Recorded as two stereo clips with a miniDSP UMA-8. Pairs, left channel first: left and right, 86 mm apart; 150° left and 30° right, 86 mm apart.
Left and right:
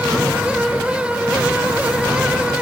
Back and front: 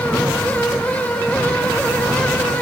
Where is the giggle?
I don't hear a giggle.